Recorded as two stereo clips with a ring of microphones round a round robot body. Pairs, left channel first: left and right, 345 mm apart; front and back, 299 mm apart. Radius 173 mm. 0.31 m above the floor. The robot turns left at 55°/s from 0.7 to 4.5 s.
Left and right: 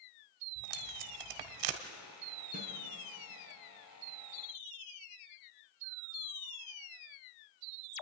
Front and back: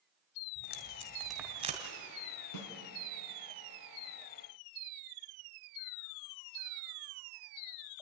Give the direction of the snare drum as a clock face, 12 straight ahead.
1 o'clock.